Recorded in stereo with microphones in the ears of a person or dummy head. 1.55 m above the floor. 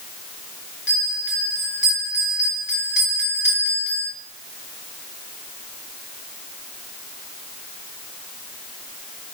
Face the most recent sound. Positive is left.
turn(degrees=60)  # may be behind; listen again after turning